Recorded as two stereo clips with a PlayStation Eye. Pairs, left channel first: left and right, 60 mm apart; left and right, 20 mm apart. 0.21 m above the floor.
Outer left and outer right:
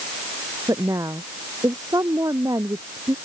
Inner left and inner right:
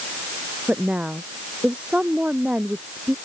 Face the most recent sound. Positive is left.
turn(degrees=-80)